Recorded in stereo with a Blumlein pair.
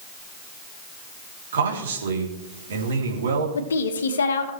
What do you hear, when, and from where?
1.5 s a man speaking: 65° right, 3 m
3.5 s a woman speaking: 65° left, 1.6 m